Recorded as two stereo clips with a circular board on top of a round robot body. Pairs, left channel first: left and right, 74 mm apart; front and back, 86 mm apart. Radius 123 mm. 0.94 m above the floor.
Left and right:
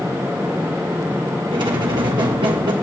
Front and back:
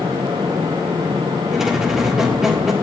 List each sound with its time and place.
1.5 s a squeak: 95° right, 1.5 m